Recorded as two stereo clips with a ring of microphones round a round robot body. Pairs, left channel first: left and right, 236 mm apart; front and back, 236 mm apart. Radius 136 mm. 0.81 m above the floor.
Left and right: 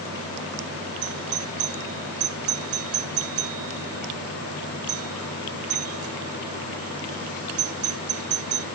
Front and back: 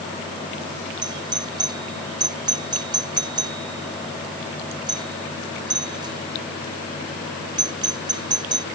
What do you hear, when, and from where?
1.0 s a doorbell: 105° right